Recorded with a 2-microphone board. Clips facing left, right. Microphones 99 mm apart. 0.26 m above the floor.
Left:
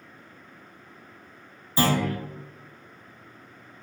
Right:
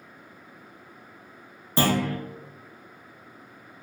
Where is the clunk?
70° right (ahead or behind), 0.7 m.